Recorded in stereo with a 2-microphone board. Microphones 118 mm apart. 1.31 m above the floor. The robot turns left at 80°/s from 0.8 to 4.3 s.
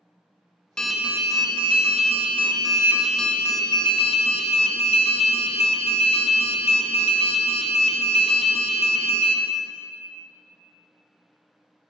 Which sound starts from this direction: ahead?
An alarm, at 0.8 s.